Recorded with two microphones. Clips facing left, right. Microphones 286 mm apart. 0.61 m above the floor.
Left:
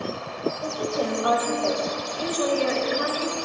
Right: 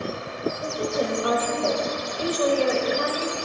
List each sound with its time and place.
0.6 s a woman speaking: 25° right (ahead or behind), 2.5 m; by 3.3 s 60° right (ahead or behind), 2 m